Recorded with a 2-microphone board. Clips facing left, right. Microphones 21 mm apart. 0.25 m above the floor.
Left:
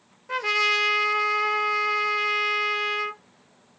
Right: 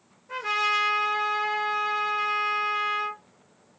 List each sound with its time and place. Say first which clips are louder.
0.3 s a trumpet: left 3 dB; 35° left (ahead or behind), 0.9 m